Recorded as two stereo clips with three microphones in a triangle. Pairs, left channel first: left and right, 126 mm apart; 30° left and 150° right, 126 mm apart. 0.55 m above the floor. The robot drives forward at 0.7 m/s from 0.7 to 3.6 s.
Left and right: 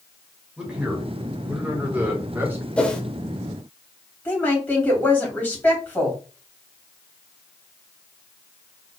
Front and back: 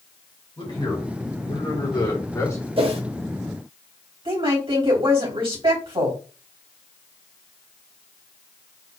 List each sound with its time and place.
0.6 s a man speaking: 10° right, 2.5 m; by 2.7 s 30° right, 1.3 m
2.8 s a whoosh: 170° left, 0.9 m
4.2 s a woman speaking: 165° left, 3 m